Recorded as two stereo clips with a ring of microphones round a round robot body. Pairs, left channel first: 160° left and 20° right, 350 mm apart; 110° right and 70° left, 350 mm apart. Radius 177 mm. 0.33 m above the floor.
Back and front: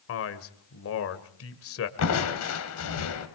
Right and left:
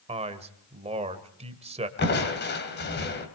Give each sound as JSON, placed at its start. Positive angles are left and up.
{"t": 0.1, "sound": "a man speaking", "azimuth_deg": 130, "distance_m": 1.6}
{"t": 2.0, "sound": "crushing", "azimuth_deg": -165, "distance_m": 2.5}